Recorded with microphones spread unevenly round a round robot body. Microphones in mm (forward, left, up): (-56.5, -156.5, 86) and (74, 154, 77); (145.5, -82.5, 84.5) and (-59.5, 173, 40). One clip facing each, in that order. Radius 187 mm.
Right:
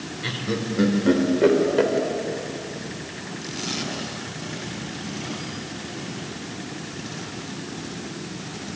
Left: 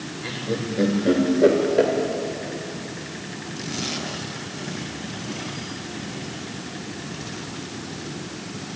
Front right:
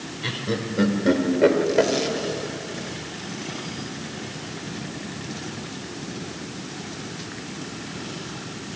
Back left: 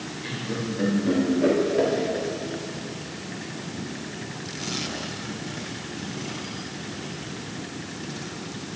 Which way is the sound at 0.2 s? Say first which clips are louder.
Even, front right 3 dB; 60° right.